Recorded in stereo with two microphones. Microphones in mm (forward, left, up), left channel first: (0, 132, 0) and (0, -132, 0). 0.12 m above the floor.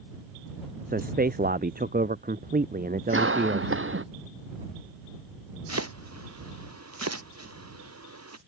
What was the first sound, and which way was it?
A man speaking, 35° right (ahead or behind).